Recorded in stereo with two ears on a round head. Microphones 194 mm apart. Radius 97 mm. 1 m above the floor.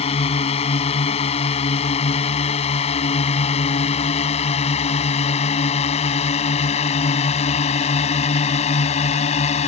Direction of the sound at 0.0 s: 30° left (ahead or behind).